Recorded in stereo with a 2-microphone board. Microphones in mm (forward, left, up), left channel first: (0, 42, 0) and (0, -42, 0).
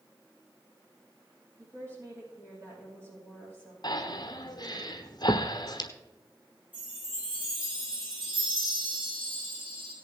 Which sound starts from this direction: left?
Breathing, at 3.8 s.